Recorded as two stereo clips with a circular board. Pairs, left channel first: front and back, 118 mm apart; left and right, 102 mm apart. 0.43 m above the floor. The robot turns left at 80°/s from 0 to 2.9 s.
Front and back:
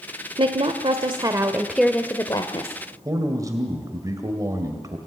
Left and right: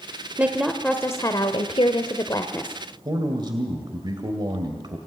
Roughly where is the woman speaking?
Behind right.